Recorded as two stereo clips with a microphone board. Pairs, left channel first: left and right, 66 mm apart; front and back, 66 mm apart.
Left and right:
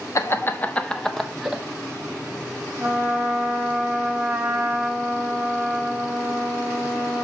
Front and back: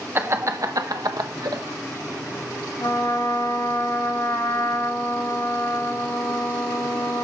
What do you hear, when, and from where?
0.1 s laughter: 125° left, 0.9 m; by 1.6 s 170° right, 1.4 m
2.8 s a trumpet: 20° right, 1.8 m